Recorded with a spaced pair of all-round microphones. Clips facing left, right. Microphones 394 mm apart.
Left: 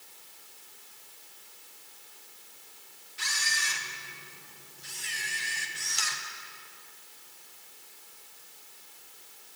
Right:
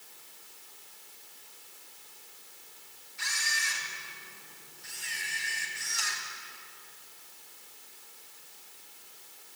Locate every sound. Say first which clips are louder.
3.2 s a camera shutter: left 2 dB; 80° left, 2.5 m